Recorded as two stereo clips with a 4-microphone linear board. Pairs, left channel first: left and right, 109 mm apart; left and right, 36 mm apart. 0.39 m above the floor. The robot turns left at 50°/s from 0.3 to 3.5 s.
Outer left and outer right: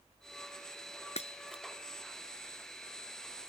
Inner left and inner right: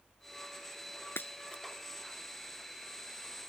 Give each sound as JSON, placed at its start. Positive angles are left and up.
{"t": 1.2, "sound": "breaking glass", "side_deg": 80}